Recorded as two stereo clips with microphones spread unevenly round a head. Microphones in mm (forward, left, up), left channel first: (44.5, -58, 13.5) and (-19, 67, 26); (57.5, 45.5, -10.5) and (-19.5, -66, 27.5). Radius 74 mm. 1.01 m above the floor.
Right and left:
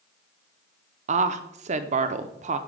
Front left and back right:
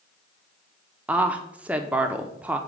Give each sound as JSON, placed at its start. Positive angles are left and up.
{"t": 1.1, "sound": "a woman speaking", "azimuth_deg": 145, "distance_m": 0.6}